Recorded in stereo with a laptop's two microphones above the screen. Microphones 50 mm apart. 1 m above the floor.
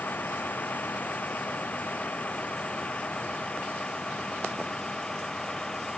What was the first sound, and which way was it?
A vehicle, 35° left (ahead or behind).